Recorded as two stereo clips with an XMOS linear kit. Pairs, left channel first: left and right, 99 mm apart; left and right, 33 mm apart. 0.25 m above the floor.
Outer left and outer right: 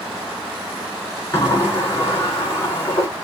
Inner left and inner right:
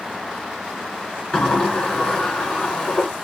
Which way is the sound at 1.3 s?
25° left (ahead or behind).